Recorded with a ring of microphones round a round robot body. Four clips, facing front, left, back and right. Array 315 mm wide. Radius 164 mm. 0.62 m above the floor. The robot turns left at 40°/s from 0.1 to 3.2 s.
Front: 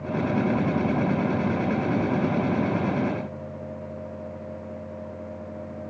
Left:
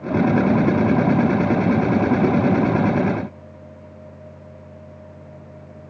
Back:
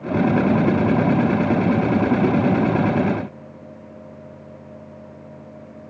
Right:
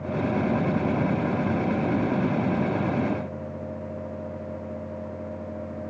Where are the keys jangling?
No keys jangling in this recording.